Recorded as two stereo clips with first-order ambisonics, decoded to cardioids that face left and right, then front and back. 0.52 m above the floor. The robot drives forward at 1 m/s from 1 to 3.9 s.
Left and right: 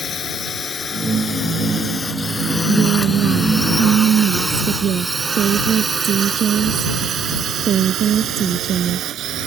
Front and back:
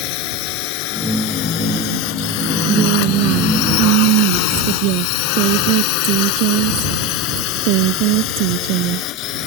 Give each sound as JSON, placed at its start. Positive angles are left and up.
{"t": 0.0, "sound": "a drone", "azimuth_deg": 25}
{"t": 2.7, "sound": "a woman speaking", "azimuth_deg": -145}